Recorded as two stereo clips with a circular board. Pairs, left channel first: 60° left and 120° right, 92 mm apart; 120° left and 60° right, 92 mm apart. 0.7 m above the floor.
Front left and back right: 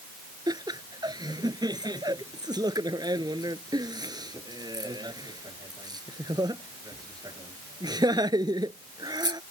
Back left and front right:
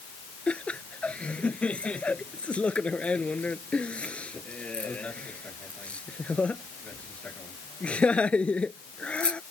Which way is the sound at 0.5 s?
165° right.